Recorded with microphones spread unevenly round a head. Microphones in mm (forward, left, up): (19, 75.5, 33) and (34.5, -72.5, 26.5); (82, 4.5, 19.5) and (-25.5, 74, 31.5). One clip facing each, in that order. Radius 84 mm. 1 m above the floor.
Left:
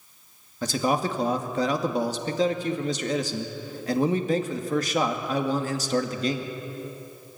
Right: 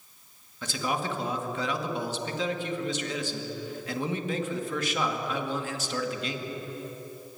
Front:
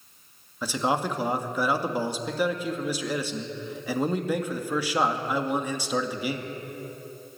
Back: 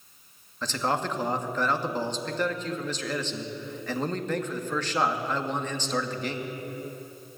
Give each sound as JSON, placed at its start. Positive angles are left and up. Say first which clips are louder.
{"t": 0.6, "sound": "a man speaking", "louder": "left 6 dB, front 2 dB", "azimuth_deg": 45, "distance_m": 2.0}